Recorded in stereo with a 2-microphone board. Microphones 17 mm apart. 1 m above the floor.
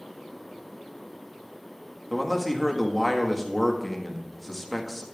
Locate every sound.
2.1 s a man speaking: 5° left (ahead or behind), 1.4 m